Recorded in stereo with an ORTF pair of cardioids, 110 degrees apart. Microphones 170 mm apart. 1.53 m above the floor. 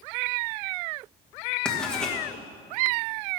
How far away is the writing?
About 2 m.